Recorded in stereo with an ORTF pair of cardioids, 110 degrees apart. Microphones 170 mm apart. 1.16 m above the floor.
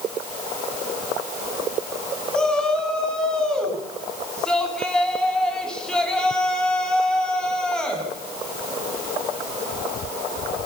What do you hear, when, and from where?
2.3 s a shout: 5° left, 7.5 m